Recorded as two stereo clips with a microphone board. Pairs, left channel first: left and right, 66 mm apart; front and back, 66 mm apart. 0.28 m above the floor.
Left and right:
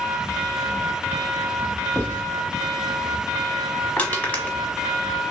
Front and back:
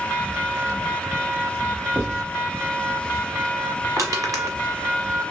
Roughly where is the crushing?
Behind left.